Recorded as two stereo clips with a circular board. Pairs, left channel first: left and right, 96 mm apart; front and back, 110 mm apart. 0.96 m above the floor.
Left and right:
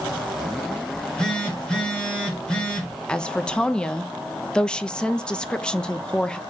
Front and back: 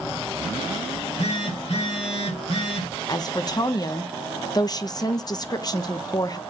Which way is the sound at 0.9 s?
10° left.